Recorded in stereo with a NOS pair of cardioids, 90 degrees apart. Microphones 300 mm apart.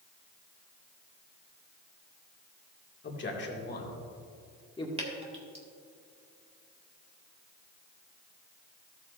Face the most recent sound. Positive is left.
turn(degrees=-20)